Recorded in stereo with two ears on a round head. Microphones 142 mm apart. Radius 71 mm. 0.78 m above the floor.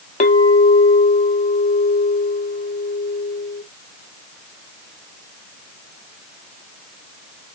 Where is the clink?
50° left (ahead or behind), 0.8 m.